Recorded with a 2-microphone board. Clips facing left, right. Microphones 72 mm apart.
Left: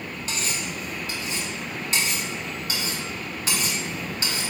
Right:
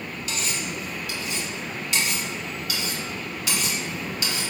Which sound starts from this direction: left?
Cutlery clinking, at 0.3 s.